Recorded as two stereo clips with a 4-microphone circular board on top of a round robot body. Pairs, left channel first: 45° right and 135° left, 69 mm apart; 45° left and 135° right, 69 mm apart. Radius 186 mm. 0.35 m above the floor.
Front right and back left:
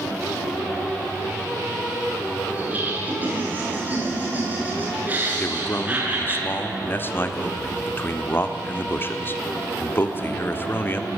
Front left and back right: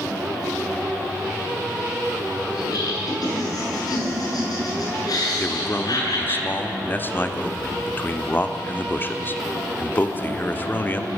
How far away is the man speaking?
About 1.8 m.